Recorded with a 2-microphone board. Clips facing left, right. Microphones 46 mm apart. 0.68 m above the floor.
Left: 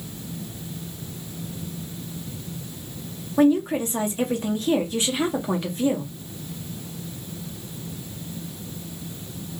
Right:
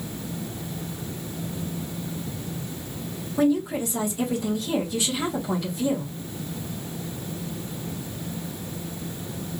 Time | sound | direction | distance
3.4 | a woman speaking | 40° left (ahead or behind) | 1.1 m